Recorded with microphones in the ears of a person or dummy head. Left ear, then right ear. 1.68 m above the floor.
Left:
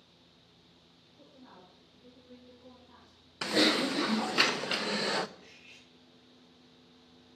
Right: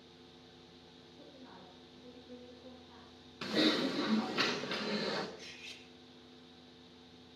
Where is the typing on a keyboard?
35° left (ahead or behind), 0.5 m.